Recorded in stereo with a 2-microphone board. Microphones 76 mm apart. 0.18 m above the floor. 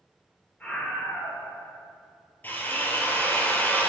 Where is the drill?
25° left (ahead or behind), 1.6 m.